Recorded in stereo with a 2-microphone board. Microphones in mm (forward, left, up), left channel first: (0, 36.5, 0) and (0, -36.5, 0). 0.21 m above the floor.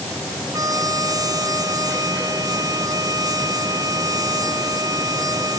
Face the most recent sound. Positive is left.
turn(degrees=-60)  # may be behind; listen again after turning